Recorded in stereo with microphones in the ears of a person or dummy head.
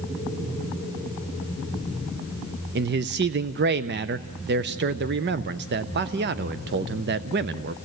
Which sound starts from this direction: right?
A man speaking, at 2.8 s.